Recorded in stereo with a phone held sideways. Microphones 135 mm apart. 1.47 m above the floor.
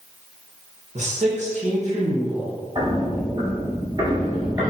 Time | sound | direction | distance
0.9 | a man speaking | 60° right (ahead or behind) | 1.1 m
2.8 | footsteps | 40° right (ahead or behind) | 2.0 m